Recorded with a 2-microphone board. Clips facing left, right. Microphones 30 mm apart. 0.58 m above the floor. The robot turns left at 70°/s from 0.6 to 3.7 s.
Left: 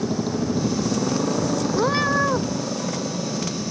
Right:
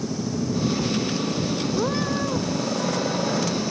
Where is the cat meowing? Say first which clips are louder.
Left 6 dB; 150° left; by 2.5 s 100° left.